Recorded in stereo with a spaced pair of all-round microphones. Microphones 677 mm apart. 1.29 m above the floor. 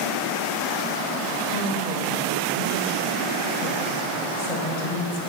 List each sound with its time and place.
1.5 s a woman speaking: 75° left (ahead or behind), 2 m